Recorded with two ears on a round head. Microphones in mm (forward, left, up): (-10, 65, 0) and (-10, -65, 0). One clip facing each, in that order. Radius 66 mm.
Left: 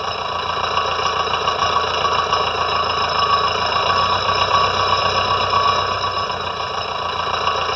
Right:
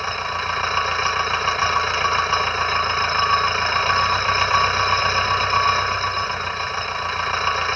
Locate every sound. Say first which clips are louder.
0.0 s an engine running: left 3 dB; 15° left (ahead or behind)